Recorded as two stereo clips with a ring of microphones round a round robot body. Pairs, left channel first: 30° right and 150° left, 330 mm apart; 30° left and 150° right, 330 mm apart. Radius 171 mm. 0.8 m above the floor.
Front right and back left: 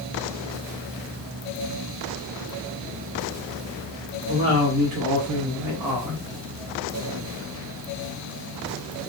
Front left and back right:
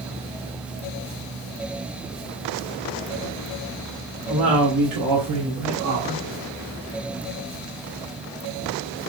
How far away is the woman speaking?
About 1.7 m.